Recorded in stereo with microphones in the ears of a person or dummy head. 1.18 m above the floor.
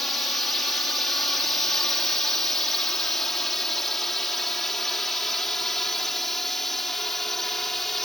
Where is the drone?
10° left (ahead or behind); by 8.0 s 5° left (ahead or behind).